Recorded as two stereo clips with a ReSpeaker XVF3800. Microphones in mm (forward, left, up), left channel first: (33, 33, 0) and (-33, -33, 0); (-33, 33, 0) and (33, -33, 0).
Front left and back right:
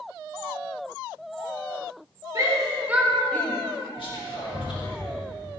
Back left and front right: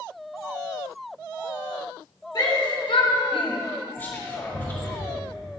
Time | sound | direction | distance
2.4 | a shout | 175° left | 1.7 m
4.0 | whispering | 70° left | 1.9 m